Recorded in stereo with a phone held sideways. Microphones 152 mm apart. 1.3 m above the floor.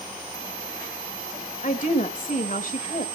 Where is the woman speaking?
60° left (ahead or behind), 2 m.